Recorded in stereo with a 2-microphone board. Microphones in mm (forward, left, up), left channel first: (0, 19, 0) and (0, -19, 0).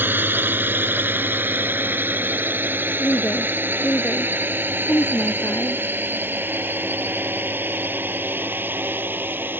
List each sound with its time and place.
0.0 s a drone: 65° right (ahead or behind)
3.0 s a woman speaking: 80° left